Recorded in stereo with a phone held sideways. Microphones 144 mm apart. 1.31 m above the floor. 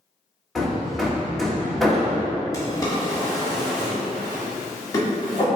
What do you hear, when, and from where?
0.6 s hammering: centre (ahead or behind), 1.0 m
2.5 s a drawer: 25° left (ahead or behind), 1.7 m